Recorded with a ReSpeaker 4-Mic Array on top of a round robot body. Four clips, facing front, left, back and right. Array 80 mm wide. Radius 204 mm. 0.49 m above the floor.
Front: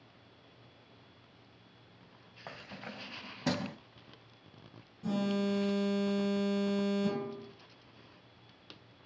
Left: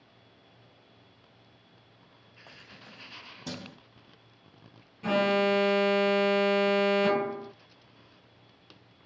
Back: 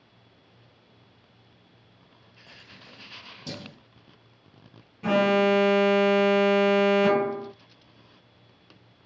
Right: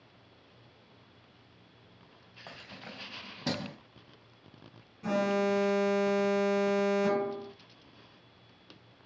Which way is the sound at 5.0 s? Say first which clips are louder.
Left 3 dB, back 12 dB; 165° left.